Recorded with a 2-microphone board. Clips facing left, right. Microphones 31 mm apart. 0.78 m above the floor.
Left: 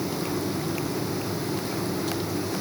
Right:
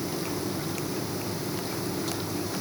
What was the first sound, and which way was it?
Only background noise.